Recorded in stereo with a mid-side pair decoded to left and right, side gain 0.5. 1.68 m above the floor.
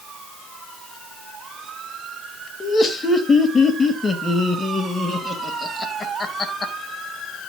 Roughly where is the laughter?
Ahead left.